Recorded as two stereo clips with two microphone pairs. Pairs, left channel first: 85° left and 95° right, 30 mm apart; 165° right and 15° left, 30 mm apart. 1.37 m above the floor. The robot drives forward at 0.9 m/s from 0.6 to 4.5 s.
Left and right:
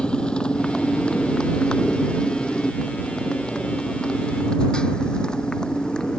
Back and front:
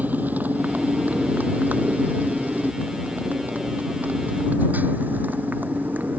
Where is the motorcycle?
30° left; by 6.2 s 25° left.